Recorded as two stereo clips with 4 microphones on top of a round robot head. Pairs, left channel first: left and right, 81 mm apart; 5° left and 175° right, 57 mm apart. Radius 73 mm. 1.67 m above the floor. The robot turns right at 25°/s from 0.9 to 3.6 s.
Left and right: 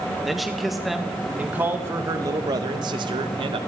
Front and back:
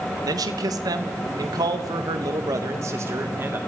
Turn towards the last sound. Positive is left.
turn(degrees=-110)